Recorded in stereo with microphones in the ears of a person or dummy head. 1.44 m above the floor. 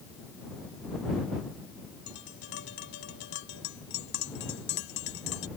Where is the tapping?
70° left (ahead or behind).